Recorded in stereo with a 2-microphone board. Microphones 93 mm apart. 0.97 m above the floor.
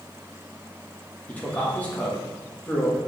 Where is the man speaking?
15° left (ahead or behind), 1.2 m.